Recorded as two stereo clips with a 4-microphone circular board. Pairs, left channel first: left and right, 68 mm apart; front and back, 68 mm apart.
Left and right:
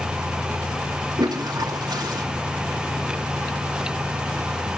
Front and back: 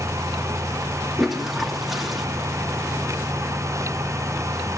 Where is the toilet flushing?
90° right, 2 m.